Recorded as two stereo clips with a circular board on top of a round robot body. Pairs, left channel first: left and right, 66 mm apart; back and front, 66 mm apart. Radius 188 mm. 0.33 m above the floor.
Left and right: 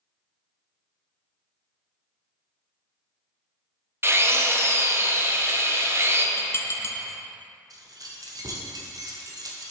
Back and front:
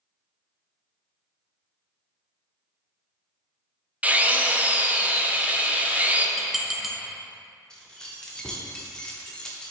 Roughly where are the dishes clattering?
Left.